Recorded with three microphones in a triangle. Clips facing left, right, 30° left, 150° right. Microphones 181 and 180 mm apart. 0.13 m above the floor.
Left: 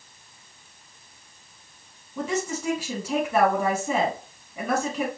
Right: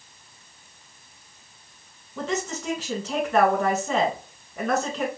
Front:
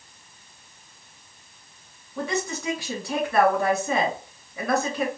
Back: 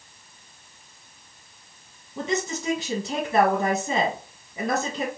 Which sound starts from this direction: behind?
A woman speaking, at 2.2 s.